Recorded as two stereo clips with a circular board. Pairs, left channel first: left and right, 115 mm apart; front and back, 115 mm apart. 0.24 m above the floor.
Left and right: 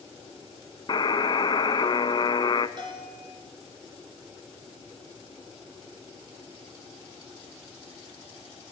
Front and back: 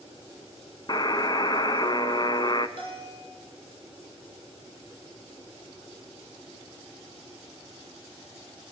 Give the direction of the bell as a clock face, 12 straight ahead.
4 o'clock.